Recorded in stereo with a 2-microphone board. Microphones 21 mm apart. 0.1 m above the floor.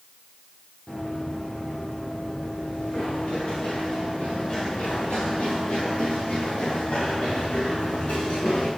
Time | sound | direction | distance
0.9 | running footsteps | 60° left (ahead or behind) | 5 m